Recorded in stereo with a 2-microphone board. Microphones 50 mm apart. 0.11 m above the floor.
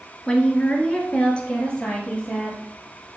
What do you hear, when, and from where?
0.3 s a woman speaking: 25° left (ahead or behind), 1.6 m; by 2.6 s 20° left (ahead or behind), 3 m